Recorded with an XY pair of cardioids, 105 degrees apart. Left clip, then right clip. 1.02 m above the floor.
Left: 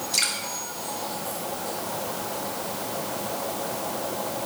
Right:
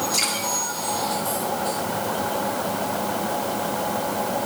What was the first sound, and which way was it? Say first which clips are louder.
Dripping: left 1 dB; 30° left.